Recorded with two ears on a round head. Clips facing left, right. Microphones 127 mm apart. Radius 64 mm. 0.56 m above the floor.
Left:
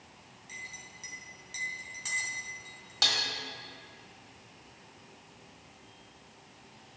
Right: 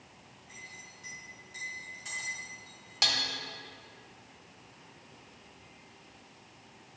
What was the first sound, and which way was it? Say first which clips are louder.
A clink: left 3 dB; 80° left.